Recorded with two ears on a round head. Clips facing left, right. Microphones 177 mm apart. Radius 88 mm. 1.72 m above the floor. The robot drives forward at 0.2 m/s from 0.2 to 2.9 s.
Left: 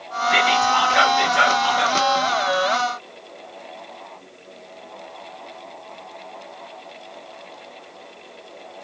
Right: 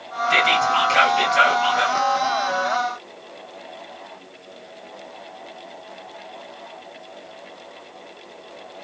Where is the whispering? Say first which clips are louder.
Left 1 dB; 40° right (ahead or behind), 2.5 m; by 2.0 s 35° right (ahead or behind), 3 m.